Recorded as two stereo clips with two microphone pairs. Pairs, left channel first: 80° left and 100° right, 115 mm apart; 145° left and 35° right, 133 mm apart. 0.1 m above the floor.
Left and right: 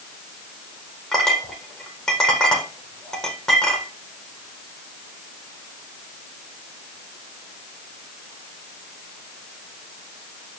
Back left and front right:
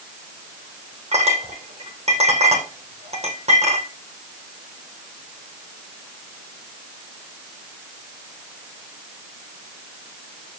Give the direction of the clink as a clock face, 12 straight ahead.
12 o'clock.